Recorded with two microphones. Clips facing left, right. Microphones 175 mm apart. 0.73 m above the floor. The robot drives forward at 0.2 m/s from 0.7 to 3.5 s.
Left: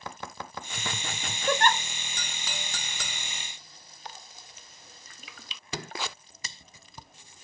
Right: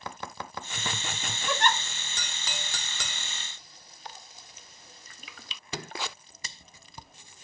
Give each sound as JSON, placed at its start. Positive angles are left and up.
{"t": 1.5, "sound": "a giggle", "side_deg": 50, "distance_m": 0.7}